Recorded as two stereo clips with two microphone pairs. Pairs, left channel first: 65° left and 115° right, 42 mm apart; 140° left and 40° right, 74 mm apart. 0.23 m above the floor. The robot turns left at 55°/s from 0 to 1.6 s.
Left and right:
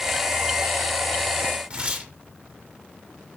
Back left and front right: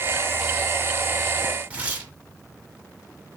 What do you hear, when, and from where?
1.7 s tearing paper: 85° right, 1.5 m